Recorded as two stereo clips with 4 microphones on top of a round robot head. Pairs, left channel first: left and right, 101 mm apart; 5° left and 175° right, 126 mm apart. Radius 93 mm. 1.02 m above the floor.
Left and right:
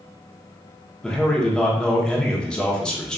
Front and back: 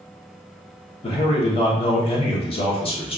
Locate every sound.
1.0 s a man speaking: 10° left, 0.9 m